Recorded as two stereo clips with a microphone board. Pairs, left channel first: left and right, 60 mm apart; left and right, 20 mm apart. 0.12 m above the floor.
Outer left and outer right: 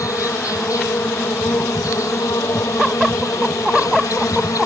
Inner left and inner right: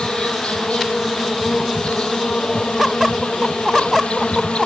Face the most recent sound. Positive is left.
turn(degrees=70)  # may be behind; listen again after turning